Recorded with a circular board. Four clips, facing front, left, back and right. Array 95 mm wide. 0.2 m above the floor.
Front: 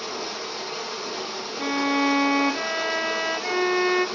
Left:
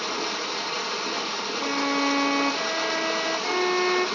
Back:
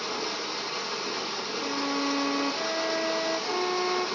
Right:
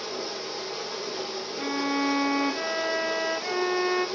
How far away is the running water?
About 1.5 m.